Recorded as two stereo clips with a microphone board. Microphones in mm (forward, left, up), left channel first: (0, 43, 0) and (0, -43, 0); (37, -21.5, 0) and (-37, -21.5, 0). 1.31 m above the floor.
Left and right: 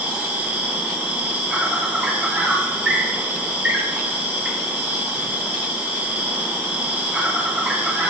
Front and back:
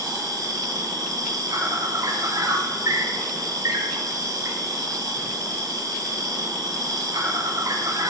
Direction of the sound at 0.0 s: 160° right.